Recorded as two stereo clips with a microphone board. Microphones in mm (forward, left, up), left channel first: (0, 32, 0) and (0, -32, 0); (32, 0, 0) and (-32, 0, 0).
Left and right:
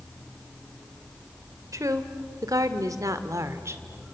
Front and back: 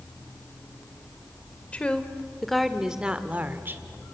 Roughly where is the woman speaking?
Right.